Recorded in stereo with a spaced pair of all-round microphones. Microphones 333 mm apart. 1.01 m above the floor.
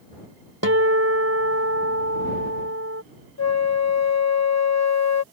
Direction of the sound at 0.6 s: 45° right (ahead or behind).